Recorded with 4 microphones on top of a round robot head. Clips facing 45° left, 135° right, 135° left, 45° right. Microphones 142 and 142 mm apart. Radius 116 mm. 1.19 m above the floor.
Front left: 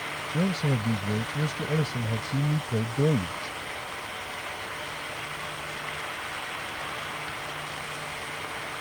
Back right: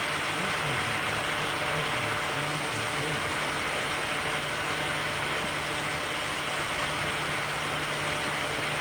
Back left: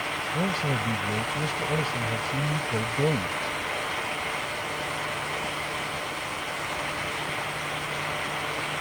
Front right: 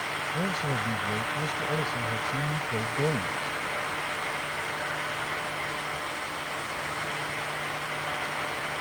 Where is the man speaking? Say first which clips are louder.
Front left 10 dB, back left 3 dB; 55° left.